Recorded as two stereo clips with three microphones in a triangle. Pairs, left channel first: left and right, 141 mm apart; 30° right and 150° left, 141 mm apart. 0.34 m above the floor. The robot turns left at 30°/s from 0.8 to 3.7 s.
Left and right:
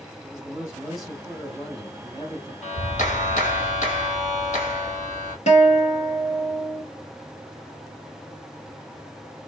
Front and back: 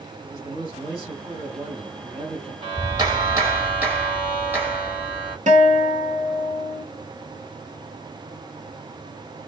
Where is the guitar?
125° left, 1.1 m.